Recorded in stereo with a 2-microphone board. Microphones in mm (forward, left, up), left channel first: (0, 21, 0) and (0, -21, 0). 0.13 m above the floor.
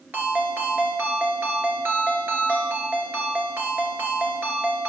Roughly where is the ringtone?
Right.